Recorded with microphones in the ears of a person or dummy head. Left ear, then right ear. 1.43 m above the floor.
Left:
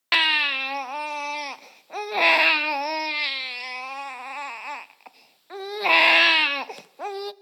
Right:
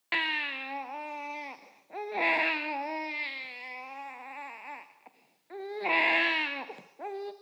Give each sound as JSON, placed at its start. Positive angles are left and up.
{"t": 0.1, "sound": "a baby crying", "side_deg": 45, "distance_m": 0.6}